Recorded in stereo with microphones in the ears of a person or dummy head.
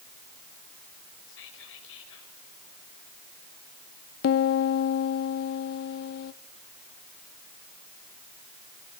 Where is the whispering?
75° left (ahead or behind), 6 m.